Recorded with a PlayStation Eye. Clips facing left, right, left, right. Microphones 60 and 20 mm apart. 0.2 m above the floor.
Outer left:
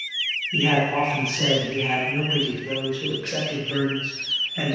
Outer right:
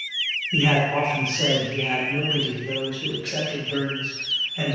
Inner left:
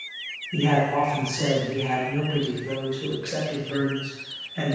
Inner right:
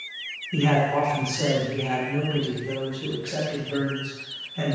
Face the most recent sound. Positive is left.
turn(degrees=65)  # may be behind; listen again after turning